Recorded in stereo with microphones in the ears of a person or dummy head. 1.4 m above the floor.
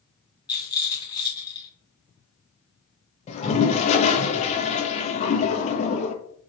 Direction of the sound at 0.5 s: 20° left (ahead or behind).